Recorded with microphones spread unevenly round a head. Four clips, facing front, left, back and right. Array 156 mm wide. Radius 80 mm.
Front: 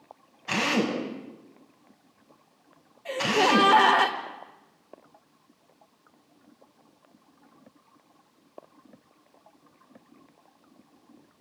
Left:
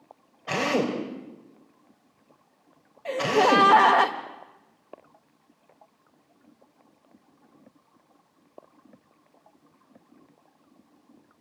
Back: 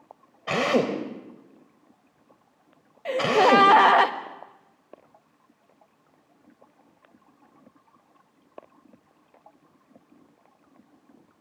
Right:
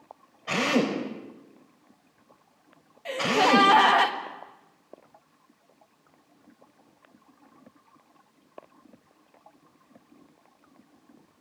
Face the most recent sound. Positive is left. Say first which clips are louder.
# left 2 dB, back 5 dB
turn(degrees=160)